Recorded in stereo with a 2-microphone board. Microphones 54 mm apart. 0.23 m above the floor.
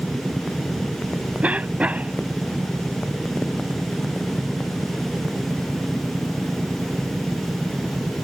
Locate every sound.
1.4 s a cough: 25° right (ahead or behind)